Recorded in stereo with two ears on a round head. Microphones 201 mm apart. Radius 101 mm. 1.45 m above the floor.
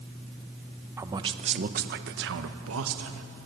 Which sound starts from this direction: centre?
A man speaking, at 1.0 s.